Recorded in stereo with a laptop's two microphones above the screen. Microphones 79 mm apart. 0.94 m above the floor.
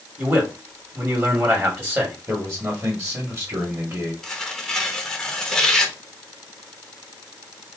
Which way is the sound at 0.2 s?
30° right (ahead or behind).